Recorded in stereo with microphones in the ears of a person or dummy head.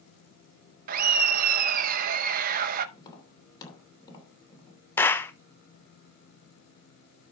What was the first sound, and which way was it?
Laughter, 45° right (ahead or behind).